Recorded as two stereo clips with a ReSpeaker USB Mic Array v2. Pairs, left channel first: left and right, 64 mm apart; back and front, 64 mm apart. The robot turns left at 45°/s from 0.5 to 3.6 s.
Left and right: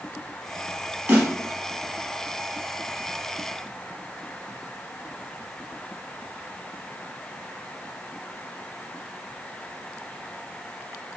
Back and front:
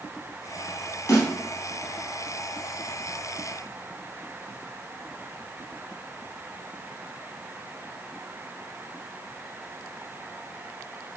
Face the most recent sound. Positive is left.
turn(degrees=110)